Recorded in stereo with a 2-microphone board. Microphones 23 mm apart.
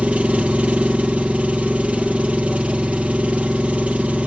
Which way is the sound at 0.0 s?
65° right (ahead or behind).